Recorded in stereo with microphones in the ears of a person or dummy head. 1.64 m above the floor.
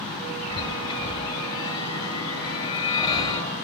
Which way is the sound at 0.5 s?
30° left (ahead or behind).